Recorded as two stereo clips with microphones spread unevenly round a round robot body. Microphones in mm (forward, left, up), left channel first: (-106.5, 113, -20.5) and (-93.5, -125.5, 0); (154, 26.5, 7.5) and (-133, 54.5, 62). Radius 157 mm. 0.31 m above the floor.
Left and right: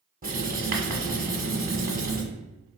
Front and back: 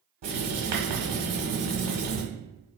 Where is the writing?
145° right, 1.4 m.